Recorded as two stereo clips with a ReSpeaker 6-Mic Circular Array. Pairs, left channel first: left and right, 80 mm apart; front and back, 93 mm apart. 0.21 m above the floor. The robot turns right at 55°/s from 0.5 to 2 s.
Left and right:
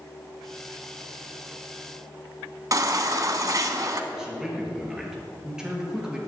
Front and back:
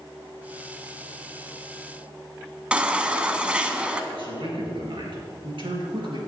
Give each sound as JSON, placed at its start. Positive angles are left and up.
{"t": 2.7, "sound": "a baby crying", "azimuth_deg": -105, "distance_m": 0.8}
{"t": 4.1, "sound": "a man speaking", "azimuth_deg": -170, "distance_m": 3.0}